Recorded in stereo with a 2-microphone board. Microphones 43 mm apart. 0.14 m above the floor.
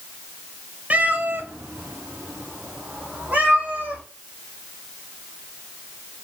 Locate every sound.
0.9 s a cat meowing: 40° right (ahead or behind), 1.0 m